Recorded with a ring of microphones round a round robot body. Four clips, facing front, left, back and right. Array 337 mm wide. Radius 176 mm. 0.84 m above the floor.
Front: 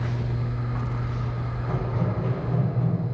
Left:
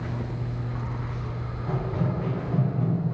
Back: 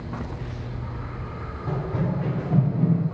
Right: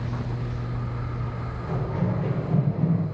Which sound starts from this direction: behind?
Running footsteps, at 1.7 s.